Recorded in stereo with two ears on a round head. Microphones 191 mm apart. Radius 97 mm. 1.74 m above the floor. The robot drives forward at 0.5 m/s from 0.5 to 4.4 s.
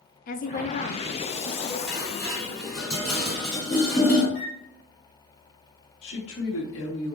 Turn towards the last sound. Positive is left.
turn(degrees=65)  # may be behind; listen again after turning